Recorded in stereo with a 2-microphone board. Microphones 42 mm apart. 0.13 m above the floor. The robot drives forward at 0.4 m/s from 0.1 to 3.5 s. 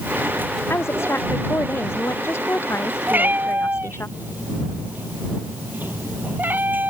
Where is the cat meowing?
50° right (ahead or behind); by 6.9 s 45° right (ahead or behind).